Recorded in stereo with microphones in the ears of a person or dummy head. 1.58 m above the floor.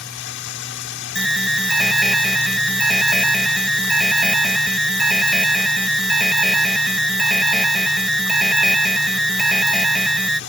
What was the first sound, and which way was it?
Running water, 70° left (ahead or behind).